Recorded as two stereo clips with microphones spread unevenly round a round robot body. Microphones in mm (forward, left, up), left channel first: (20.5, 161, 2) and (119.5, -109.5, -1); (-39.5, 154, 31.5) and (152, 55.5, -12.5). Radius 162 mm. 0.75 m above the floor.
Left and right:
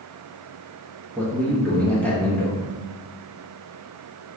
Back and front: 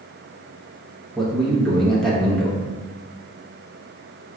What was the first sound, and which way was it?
A man speaking, 35° left.